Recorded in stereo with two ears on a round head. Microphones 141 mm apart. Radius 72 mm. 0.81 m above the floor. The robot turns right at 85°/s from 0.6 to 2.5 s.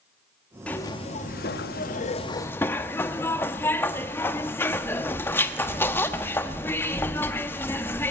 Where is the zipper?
10° left, 1.1 m; by 8.1 s 165° left, 1.1 m.